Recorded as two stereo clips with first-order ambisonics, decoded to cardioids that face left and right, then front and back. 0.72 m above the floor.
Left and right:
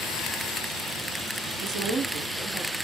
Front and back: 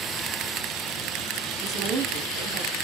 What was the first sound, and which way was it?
A woman speaking, 120° right.